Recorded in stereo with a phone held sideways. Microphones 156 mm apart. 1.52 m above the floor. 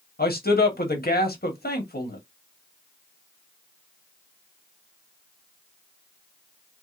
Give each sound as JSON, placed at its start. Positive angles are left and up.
{"t": 0.2, "sound": "a man speaking", "side_deg": 85, "distance_m": 1.3}